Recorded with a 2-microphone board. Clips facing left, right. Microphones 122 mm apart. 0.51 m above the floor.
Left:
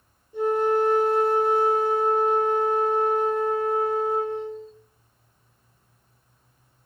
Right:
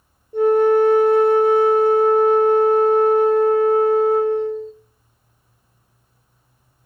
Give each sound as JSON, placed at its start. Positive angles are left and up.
{"t": 0.3, "sound": "a flute", "side_deg": -60, "distance_m": 0.8}